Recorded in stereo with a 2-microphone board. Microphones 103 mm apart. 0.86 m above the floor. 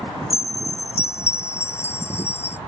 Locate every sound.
0.3 s a chime: 70° left (ahead or behind)